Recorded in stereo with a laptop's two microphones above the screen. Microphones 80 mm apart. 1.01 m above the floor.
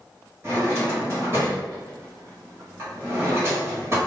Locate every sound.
0.4 s a drawer: 35° right (ahead or behind), 1.8 m